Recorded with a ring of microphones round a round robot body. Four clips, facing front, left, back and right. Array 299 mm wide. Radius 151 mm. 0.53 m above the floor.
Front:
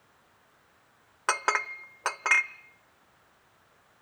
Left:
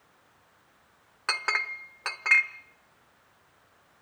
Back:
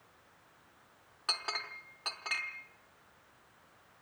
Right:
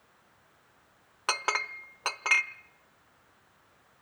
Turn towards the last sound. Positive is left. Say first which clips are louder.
# right 1 dB, front 13 dB
turn(degrees=-15)